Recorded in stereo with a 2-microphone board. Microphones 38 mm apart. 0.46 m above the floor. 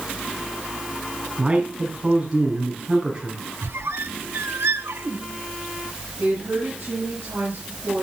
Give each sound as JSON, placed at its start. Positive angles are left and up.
{"t": 1.4, "sound": "a man speaking", "side_deg": -25, "distance_m": 4.5}
{"t": 3.6, "sound": "a squeak", "side_deg": -85, "distance_m": 0.8}
{"t": 6.2, "sound": "a woman speaking", "side_deg": -65, "distance_m": 8.0}